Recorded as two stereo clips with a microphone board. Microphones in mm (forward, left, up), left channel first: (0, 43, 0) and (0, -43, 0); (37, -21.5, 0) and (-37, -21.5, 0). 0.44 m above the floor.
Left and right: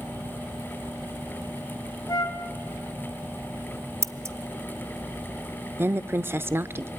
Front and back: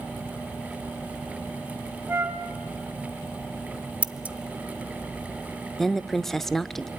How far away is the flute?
About 3 m.